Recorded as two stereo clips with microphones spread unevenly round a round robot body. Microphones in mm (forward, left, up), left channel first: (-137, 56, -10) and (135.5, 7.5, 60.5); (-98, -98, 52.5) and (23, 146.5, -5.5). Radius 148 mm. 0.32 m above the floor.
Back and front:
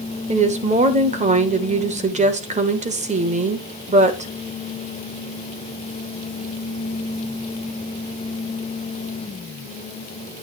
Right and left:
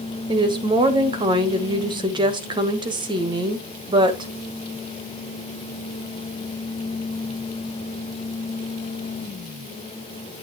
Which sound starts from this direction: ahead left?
A woman speaking, at 0.3 s.